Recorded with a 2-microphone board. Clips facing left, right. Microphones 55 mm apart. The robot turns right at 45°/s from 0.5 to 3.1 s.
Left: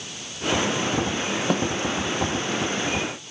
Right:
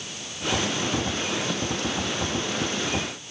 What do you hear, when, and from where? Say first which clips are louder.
1.5 s a snare drum: left 6 dB; 45° left (ahead or behind); by 1.6 s 40° left (ahead or behind)